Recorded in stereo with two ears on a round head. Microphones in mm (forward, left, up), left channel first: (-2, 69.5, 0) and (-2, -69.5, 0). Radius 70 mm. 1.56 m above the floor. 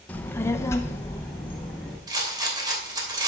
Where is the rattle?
25° right (ahead or behind), 2.5 m.